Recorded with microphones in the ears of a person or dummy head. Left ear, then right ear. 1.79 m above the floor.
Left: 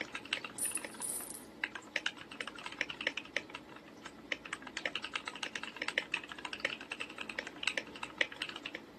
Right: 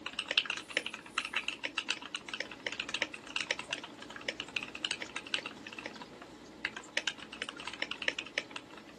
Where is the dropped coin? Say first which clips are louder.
Right 7 dB; 70° left (ahead or behind), 4 m.